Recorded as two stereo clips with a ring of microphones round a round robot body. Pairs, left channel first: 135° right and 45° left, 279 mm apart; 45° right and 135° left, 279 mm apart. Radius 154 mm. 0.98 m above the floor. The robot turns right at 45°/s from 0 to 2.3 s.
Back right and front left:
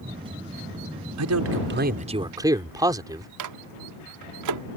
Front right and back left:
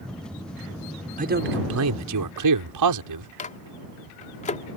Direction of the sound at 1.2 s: 70° left.